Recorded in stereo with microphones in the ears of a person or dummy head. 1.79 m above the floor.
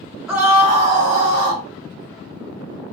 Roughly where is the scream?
Centre.